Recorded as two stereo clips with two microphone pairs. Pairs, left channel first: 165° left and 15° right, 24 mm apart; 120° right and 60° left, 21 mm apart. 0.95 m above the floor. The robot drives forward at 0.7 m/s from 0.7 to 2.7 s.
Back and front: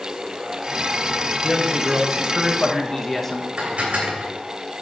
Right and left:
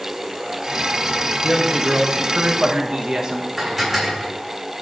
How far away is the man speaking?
About 1.4 m.